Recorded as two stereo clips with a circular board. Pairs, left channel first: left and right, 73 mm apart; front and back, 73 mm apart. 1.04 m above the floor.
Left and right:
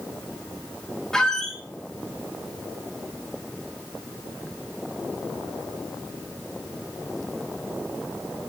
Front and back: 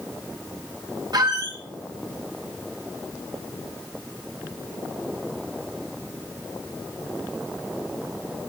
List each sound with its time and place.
1.1 s a squeak: 170° left, 1.2 m